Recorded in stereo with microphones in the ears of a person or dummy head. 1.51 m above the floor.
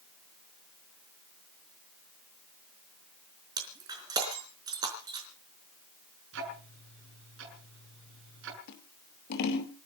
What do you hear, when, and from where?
3.6 s breaking glass: 20° right (ahead or behind), 4 m
6.3 s ticking: 70° right (ahead or behind), 7 m
8.7 s scissors: 55° left (ahead or behind), 2.5 m